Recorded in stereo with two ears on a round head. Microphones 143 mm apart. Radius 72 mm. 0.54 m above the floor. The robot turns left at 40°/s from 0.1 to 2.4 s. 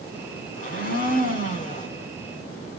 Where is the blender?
110° left, 1.8 m; by 1.9 s 55° left, 1.8 m.